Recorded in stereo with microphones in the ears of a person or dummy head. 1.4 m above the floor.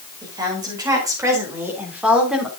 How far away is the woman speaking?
About 5 m.